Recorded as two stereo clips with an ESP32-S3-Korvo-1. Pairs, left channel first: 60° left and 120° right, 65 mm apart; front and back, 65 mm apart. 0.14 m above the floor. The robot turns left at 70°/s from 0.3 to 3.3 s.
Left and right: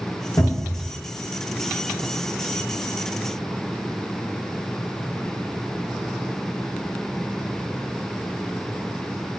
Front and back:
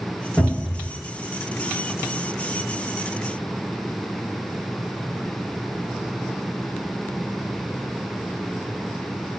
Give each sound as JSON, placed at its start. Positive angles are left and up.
{"t": 0.4, "sound": "a cupboard door", "azimuth_deg": 85, "distance_m": 1.9}